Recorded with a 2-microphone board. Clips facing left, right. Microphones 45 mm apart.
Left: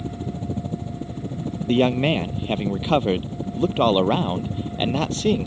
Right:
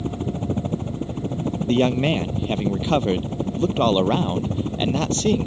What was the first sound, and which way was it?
A helicopter, 55° right (ahead or behind).